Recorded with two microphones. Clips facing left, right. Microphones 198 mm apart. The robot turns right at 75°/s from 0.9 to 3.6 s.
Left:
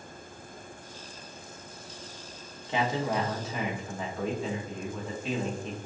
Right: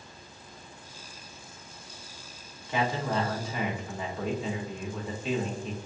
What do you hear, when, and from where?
2.7 s a man speaking: 25° left (ahead or behind), 0.9 m; by 5.8 s centre (ahead or behind), 0.9 m